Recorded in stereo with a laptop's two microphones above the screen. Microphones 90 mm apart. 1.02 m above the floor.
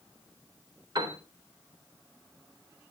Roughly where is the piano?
Right.